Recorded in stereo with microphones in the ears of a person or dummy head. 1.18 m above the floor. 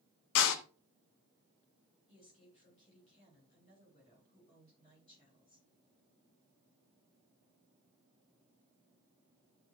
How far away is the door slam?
About 0.9 m.